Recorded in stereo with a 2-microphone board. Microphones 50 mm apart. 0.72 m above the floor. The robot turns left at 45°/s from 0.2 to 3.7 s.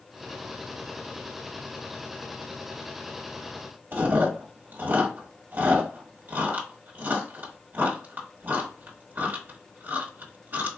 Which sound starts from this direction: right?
Chewing, at 3.9 s.